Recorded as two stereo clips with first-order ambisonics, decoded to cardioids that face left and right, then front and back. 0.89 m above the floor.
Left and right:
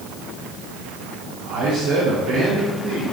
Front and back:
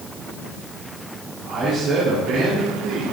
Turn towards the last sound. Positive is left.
turn(degrees=-140)